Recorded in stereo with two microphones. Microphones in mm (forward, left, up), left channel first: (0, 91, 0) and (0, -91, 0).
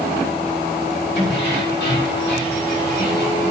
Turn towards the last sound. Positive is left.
turn(degrees=80)